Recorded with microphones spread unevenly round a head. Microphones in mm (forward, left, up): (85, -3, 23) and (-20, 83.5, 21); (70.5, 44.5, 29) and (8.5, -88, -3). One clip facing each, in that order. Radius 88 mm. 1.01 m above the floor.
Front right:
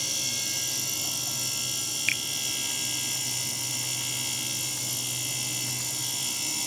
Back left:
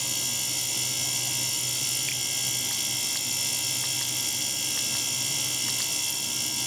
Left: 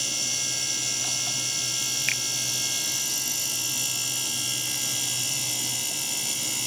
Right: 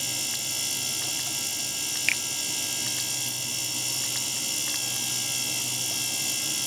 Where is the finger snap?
50° right.